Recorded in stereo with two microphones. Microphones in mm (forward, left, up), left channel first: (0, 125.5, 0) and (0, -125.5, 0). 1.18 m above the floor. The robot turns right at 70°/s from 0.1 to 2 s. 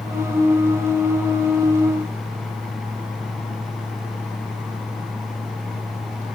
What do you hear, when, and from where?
Only background noise.